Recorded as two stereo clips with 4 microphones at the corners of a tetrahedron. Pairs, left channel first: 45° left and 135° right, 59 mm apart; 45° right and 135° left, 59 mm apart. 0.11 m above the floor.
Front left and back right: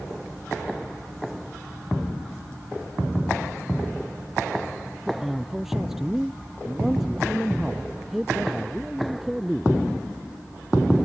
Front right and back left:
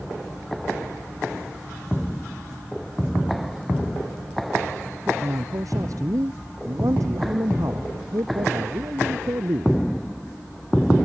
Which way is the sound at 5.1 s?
140° left.